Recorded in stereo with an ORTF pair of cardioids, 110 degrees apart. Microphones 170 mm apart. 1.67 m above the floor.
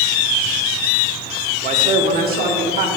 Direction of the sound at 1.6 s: 45° right.